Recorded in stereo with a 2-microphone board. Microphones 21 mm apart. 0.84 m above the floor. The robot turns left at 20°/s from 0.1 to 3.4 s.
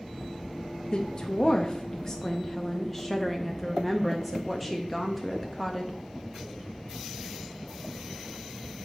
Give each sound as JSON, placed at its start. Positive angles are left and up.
{"t": 0.9, "sound": "a woman speaking", "azimuth_deg": 55, "distance_m": 0.6}